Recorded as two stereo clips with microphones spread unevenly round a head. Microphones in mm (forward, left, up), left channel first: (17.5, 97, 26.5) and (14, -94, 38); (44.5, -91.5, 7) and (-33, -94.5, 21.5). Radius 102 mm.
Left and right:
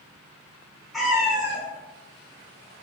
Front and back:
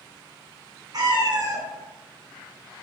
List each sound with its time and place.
0.9 s a cat meowing: straight behind, 0.8 m; by 2.8 s 130° right, 1.5 m